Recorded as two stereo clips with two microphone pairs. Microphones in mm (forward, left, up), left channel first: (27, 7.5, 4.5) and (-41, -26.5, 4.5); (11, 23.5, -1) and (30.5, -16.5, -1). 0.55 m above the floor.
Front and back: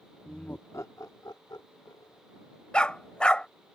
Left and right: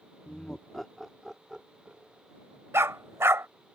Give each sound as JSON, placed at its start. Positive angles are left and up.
{"t": 0.2, "sound": "laughter", "azimuth_deg": 100}
{"t": 2.7, "sound": "a dog barking", "azimuth_deg": -50}